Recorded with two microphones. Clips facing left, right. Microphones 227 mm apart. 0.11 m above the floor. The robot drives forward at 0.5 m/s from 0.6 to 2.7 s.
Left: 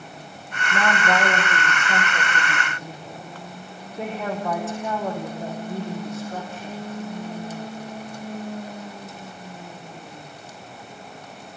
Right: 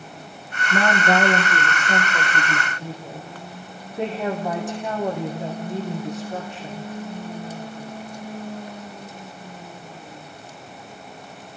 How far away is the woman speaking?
About 5 m.